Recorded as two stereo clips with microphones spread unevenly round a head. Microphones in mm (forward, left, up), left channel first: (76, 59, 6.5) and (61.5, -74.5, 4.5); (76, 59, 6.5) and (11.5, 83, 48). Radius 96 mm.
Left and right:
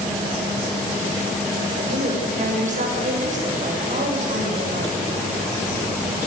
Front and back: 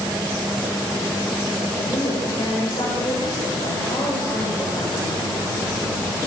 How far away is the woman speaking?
About 7 m.